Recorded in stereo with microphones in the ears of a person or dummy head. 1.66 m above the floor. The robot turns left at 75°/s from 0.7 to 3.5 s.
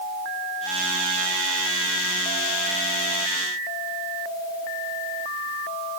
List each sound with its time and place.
Only background noise.